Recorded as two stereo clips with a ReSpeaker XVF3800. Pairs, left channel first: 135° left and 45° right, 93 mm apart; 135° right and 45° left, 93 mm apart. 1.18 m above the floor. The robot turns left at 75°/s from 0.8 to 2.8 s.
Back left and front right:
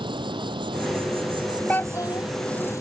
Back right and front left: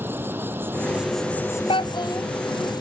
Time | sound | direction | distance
0.0 | an insect | 20° right | ?
1.7 | a child speaking | 150° right | ?